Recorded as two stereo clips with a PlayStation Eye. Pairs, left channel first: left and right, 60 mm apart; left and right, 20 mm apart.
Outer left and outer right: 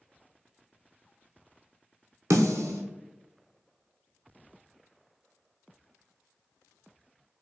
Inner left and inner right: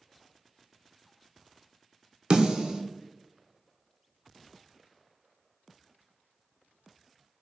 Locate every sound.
2.3 s a snare drum: 60° right (ahead or behind), 0.7 m